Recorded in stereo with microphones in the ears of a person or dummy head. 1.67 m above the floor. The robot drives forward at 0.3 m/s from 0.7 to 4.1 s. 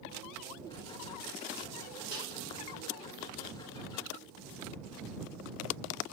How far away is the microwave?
About 2 m.